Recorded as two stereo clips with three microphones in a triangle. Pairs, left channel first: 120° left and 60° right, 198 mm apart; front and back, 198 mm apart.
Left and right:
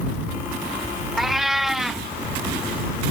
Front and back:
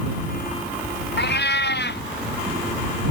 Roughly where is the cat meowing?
Ahead left.